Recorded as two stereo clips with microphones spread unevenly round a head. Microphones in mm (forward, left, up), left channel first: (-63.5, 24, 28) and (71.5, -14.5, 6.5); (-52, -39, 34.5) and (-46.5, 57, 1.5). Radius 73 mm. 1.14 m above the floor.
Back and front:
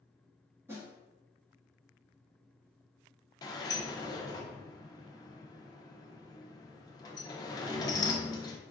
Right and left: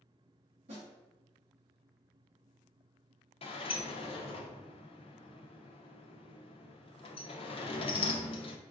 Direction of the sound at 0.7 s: 60° left.